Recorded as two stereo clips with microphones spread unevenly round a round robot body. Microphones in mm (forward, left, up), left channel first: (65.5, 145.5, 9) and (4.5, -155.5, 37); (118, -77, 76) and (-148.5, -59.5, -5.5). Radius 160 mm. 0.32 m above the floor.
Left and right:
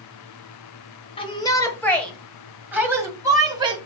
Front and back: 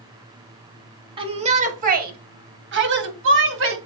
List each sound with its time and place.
1.2 s a shout: 140° left, 1.4 m; by 3.8 s straight behind, 2.5 m